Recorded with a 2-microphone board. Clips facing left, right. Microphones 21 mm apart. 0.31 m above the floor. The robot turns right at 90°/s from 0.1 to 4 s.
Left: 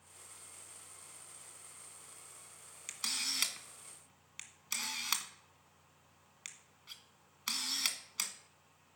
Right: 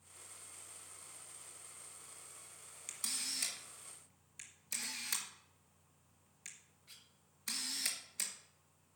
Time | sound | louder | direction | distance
2.9 | a camera shutter | left 5 dB | 20° left (ahead or behind) | 1.5 m